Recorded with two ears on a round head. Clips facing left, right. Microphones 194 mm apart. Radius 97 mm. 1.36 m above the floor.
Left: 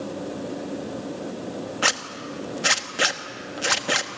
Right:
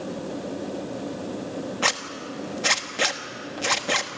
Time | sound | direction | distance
1.8 | a zipper | 5° left (ahead or behind) | 1.1 m